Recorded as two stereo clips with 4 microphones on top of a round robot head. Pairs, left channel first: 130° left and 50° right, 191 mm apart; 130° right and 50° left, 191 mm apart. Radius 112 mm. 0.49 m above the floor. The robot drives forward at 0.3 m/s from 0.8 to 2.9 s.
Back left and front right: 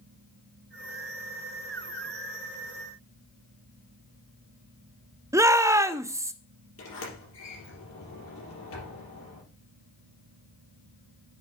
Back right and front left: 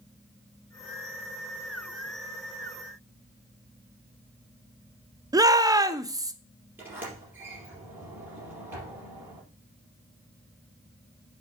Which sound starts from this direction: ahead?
A shout, at 5.3 s.